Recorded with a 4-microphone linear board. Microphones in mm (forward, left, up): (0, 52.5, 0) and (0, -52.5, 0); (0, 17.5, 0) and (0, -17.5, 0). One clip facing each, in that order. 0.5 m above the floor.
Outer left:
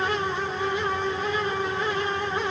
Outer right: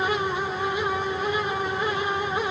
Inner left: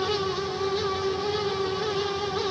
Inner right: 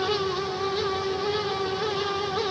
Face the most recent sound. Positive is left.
No sound to turn to.